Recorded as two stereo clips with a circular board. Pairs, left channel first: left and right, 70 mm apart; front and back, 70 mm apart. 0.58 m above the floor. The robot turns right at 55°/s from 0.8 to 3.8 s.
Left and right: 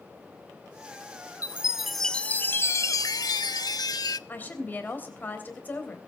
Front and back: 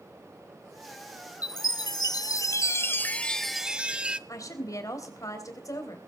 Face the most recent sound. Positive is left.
turn(degrees=30)